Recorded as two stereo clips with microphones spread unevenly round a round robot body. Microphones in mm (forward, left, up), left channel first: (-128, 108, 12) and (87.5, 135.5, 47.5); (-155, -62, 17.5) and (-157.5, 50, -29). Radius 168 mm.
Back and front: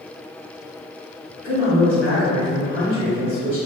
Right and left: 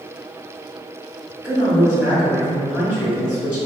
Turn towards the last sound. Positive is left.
turn(degrees=-70)